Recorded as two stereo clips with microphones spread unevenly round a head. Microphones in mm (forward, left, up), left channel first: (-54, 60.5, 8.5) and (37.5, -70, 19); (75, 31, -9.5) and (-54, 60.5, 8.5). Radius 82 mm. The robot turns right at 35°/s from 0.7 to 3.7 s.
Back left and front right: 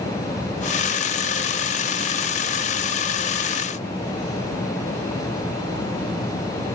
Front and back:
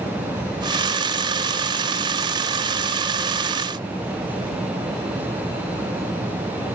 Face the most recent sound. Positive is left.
No sound to turn to.